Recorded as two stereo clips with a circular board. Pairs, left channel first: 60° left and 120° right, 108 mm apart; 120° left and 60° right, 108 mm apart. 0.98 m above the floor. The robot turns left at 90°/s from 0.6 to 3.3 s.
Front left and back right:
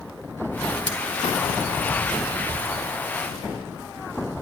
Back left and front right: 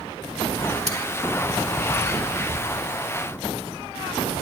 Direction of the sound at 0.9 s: 80° right.